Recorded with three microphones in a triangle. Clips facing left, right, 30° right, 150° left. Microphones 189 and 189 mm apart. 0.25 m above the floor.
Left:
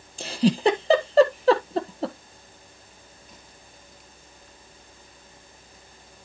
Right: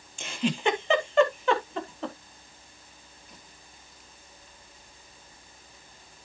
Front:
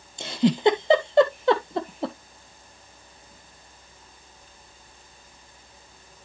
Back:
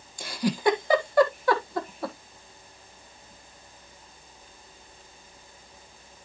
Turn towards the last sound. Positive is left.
turn(degrees=35)